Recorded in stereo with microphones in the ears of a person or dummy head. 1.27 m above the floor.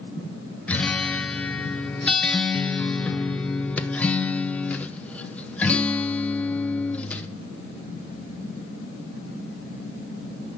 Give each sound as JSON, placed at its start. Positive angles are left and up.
{"t": 0.7, "sound": "a guitar", "side_deg": 10, "distance_m": 0.6}